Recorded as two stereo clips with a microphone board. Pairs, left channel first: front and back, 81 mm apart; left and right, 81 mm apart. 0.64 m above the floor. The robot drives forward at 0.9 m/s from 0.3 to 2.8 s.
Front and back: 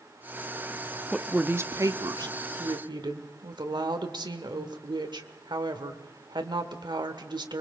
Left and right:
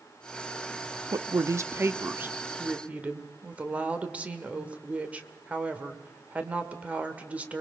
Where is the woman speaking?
85° right, 0.7 m; by 7.6 s 160° right, 1.6 m.